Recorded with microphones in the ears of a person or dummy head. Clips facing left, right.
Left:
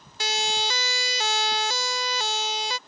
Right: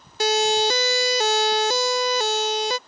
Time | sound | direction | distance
0.2 | a siren | 40° right (ahead or behind) | ?